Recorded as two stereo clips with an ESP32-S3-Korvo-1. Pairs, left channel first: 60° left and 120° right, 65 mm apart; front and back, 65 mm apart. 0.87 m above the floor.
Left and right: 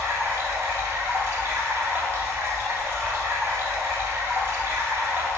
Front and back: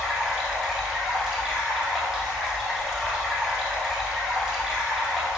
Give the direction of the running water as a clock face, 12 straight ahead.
3 o'clock.